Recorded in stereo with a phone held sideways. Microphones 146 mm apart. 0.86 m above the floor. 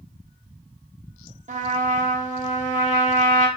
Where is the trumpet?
55° right (ahead or behind), 0.7 m.